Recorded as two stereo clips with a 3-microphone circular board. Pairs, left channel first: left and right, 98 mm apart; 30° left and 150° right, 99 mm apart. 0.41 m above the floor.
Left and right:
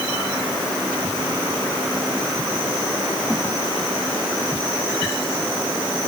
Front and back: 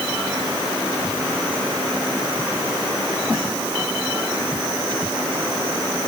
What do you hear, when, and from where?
Only background noise.